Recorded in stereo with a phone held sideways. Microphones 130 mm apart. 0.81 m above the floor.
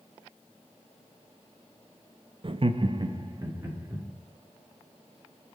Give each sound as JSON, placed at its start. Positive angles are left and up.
{"t": 2.4, "sound": "laughter", "side_deg": -45, "distance_m": 0.5}